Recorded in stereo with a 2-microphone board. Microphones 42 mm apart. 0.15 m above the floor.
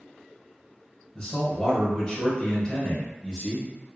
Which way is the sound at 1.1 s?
20° left (ahead or behind).